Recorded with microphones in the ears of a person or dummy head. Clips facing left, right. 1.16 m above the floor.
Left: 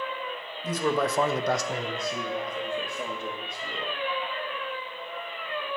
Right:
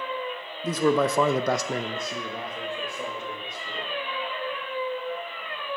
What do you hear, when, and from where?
0.6 s a man speaking: 60° right (ahead or behind), 0.9 m; by 3.9 s 10° left (ahead or behind), 2 m